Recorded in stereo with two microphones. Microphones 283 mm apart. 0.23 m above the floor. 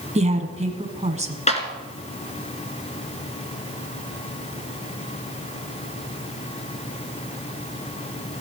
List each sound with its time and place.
0.1 s a woman speaking: 25° right (ahead or behind), 1.7 m
1.5 s a clap: 25° left (ahead or behind), 2 m